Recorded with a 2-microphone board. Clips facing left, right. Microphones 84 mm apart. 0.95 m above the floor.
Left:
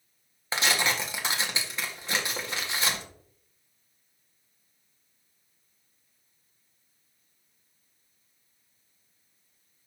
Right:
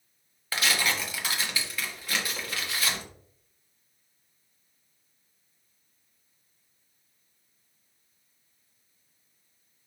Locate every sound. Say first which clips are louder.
0.5 s tearing paper: left 1 dB; 25° left (ahead or behind), 1.8 m